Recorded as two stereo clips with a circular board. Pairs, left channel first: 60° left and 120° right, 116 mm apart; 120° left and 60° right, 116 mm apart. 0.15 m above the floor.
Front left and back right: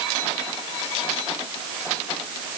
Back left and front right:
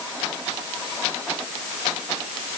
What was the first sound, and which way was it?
Only background noise.